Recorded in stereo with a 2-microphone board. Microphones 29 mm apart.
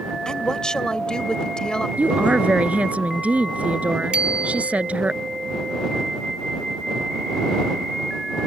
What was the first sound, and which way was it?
A woman speaking, 30° left (ahead or behind).